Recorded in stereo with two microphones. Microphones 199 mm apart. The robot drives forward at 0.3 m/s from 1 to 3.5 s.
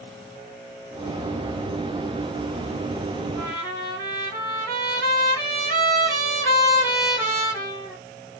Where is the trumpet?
20° left (ahead or behind), 1.8 m.